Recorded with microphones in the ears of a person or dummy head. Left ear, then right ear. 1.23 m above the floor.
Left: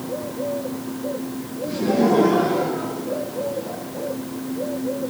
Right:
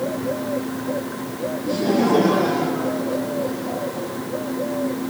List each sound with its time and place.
1.6 s laughter: 40° right (ahead or behind), 10 m; by 4.1 s 50° right (ahead or behind), 7.5 m